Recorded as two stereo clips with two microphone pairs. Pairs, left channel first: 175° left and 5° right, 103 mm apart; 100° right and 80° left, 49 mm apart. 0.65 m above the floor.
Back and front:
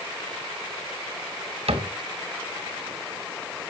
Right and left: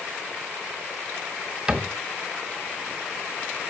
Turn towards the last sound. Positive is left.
turn(degrees=10)